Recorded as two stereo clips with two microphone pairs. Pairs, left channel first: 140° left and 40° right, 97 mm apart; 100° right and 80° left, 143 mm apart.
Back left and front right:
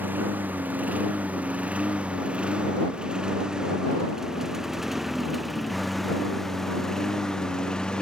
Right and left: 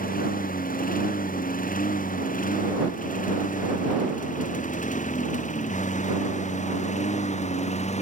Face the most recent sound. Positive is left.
turn(degrees=-140)